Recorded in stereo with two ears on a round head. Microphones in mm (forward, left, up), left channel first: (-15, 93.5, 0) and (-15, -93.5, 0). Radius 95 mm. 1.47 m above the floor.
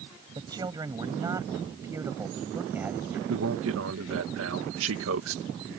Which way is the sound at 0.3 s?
20° right (ahead or behind).